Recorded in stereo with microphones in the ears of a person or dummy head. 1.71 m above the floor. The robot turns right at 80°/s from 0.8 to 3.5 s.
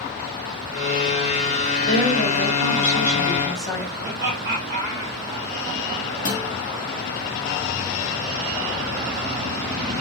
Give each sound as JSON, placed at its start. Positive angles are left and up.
{"t": 1.9, "sound": "a woman speaking", "azimuth_deg": 25, "distance_m": 1.3}
{"t": 4.0, "sound": "laughter", "side_deg": -35, "distance_m": 0.8}
{"t": 6.2, "sound": "a guitar", "side_deg": 50, "distance_m": 0.9}